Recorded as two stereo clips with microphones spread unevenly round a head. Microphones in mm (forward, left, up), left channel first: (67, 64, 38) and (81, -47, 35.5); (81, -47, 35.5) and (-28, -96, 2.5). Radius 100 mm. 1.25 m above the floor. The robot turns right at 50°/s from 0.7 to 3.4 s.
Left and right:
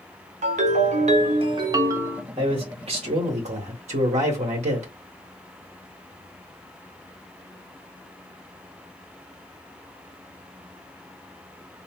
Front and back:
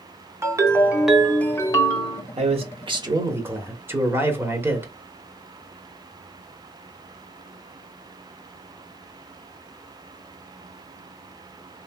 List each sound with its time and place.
0.4 s a ringtone: 85° right, 0.8 m; by 2.2 s 5° right, 0.8 m
2.4 s a man speaking: 140° right, 1.0 m; by 4.9 s 90° right, 1.0 m